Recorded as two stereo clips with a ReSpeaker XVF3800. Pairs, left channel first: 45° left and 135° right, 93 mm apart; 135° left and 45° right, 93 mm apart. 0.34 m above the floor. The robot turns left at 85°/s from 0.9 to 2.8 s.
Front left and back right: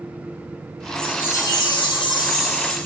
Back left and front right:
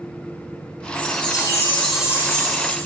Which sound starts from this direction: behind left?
A chime, at 0.9 s.